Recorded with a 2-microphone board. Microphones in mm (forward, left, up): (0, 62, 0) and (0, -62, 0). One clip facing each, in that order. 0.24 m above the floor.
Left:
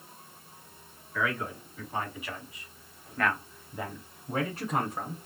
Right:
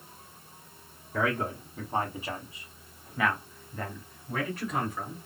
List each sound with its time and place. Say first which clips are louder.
1.1 s a man speaking: right 3 dB; 55° right (ahead or behind), 1.8 m; by 5.2 s 45° left (ahead or behind), 1.7 m